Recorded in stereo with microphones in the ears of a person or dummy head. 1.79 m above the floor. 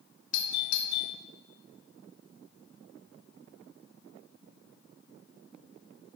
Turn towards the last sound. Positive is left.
turn(degrees=85)